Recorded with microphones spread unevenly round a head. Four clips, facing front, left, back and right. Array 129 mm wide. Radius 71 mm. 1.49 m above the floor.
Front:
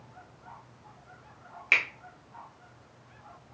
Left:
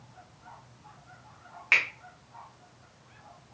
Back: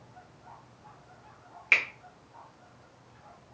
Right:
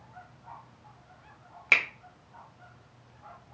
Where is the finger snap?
90° right, 0.6 m.